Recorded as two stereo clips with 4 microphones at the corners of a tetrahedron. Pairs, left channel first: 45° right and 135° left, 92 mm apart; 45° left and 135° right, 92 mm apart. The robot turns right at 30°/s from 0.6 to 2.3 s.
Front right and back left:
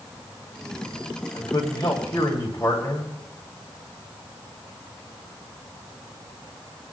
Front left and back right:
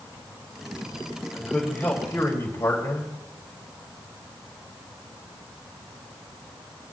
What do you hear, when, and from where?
1.3 s a man speaking: 35° right, 2.5 m; by 3.1 s 5° right, 2.5 m